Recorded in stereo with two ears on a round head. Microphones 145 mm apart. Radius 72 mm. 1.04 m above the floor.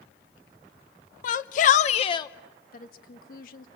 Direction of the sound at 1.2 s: 55° left (ahead or behind).